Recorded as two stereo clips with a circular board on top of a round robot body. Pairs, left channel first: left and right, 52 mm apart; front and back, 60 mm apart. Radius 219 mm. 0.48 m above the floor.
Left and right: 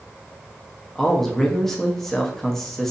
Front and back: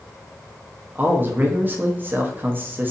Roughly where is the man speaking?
Behind.